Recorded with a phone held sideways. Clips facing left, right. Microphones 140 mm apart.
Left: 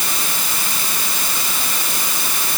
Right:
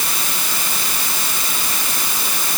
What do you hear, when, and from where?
Only background noise.